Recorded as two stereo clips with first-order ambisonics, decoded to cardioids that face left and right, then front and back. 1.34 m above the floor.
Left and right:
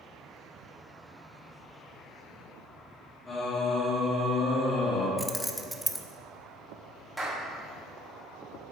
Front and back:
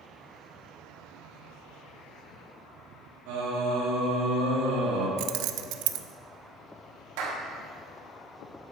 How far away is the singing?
About 2 m.